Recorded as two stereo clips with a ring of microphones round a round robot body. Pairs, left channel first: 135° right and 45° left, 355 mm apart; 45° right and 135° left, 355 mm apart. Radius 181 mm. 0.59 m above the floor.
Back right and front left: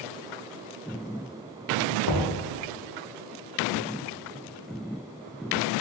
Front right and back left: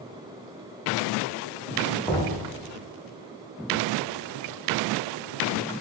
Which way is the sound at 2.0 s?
125° right.